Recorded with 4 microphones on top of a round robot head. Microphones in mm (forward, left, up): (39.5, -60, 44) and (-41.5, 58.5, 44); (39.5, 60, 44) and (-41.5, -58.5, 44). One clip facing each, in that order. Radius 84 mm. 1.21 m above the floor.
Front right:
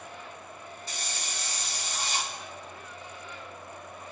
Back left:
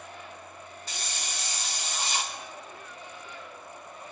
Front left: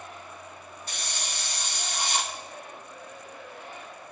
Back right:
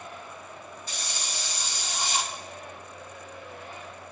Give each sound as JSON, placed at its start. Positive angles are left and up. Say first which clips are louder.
{"t": 0.9, "sound": "a hiss", "louder": "back left 1 dB, front left 1 dB", "azimuth_deg": 100, "distance_m": 1.2}